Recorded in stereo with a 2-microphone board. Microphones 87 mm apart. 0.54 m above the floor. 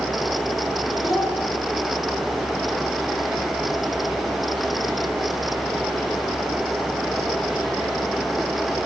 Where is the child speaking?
Centre (ahead or behind), 5.5 m.